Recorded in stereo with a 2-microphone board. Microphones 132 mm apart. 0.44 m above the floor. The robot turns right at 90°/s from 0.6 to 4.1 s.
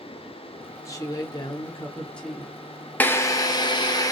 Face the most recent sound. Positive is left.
turn(degrees=125)